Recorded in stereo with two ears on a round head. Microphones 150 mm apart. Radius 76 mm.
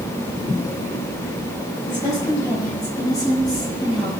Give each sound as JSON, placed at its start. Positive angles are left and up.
{"t": 1.9, "sound": "a woman speaking", "side_deg": 15, "distance_m": 7.5}